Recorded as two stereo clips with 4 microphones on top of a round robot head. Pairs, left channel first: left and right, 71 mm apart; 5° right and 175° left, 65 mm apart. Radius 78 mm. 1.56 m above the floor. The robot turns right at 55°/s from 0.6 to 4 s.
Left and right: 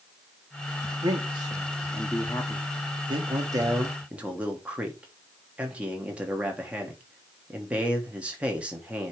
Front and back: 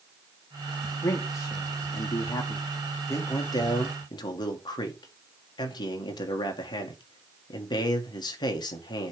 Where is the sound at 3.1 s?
65° right, 1.5 m; by 9.1 s 15° right, 1.5 m.